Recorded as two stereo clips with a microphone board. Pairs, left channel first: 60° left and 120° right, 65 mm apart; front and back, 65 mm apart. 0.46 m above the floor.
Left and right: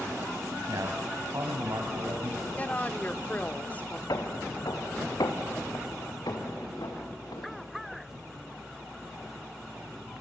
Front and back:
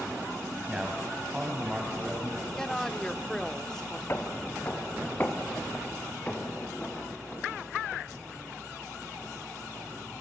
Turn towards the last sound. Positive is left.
turn(degrees=70)